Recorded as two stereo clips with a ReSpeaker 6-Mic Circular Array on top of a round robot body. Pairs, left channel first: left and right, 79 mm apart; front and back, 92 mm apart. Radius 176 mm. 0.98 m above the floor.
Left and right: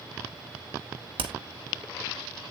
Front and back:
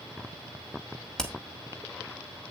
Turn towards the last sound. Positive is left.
turn(degrees=-85)